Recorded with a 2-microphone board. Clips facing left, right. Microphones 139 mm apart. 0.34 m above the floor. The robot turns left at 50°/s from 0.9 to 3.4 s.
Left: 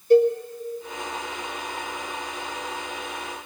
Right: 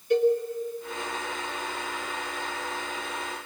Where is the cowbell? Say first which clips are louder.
Left 5 dB; 40° left (ahead or behind), 1.6 m.